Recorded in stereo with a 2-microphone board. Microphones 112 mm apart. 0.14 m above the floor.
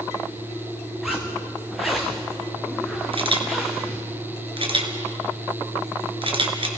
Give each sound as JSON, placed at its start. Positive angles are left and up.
{"t": 1.0, "sound": "a zipper", "side_deg": 0, "distance_m": 3.5}
{"t": 3.1, "sound": "a camera shutter", "side_deg": -55, "distance_m": 2.5}